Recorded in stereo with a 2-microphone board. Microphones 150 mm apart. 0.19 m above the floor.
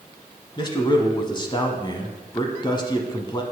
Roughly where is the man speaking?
Left.